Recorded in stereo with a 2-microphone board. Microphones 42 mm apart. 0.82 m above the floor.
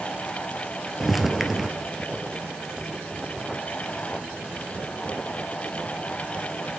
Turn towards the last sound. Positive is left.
turn(degrees=-5)  # may be behind; listen again after turning